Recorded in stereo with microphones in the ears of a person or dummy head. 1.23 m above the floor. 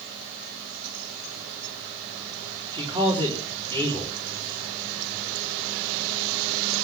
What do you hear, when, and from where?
2.7 s a man speaking: 25° right (ahead or behind), 3.5 m